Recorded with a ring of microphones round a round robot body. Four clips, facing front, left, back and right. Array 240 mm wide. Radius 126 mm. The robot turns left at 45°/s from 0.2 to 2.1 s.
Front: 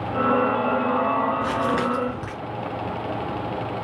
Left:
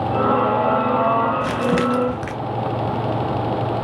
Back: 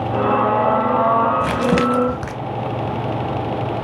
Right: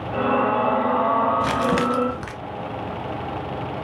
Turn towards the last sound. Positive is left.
turn(degrees=165)